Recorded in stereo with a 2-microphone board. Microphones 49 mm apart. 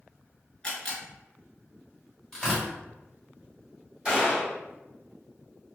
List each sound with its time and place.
0.6 s a camera shutter: 20° left (ahead or behind), 1.3 m
2.3 s tearing paper: 10° left (ahead or behind), 1.3 m
4.0 s a gunshot: 15° right (ahead or behind), 1.6 m